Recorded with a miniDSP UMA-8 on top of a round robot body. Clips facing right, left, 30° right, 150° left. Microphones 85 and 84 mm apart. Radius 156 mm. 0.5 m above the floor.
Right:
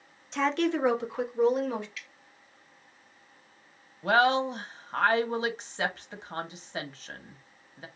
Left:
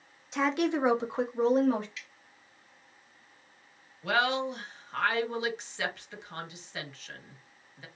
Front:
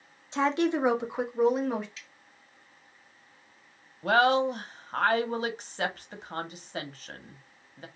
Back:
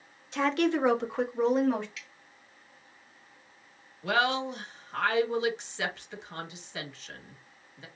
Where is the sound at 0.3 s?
10° left, 1.2 m; by 1.9 s 55° left, 1.5 m.